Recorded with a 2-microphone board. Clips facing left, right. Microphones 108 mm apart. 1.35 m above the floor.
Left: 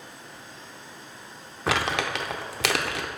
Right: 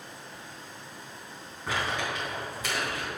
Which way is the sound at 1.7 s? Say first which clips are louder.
Left 5 dB; 80° left.